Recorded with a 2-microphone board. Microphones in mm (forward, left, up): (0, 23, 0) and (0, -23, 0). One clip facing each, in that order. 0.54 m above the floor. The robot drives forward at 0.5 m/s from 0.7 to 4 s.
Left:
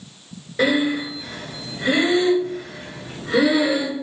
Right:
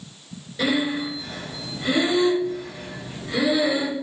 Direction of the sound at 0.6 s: 40° left (ahead or behind).